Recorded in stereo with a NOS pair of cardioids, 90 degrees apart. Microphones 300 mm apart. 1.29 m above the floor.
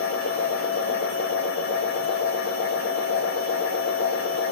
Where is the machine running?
70° left, 1.1 m.